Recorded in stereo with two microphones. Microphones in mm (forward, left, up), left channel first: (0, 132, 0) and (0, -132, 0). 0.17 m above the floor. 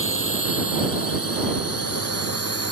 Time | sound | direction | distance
0.0 | a drone | 55° left (ahead or behind) | ?